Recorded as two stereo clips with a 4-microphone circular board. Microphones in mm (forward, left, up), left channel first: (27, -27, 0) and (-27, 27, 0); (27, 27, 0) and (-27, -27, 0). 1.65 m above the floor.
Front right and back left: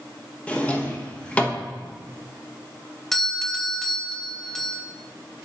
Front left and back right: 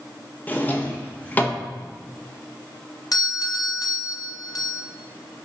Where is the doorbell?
40° left, 0.8 m.